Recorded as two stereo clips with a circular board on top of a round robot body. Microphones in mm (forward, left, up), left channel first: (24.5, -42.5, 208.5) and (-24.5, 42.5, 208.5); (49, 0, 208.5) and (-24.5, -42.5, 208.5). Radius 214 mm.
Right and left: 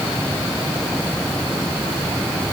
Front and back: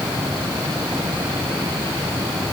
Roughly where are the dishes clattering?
I don't hear dishes clattering.